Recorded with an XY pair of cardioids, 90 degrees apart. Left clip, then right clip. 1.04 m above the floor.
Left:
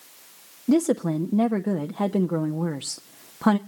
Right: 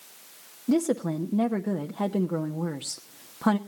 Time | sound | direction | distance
0.7 | a woman speaking | 25° left | 0.8 m